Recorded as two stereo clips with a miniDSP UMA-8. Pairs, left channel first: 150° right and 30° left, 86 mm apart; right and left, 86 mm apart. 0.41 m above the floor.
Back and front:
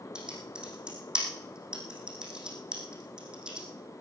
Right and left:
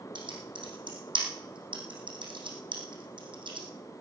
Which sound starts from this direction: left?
Typing on a keyboard, at 0.1 s.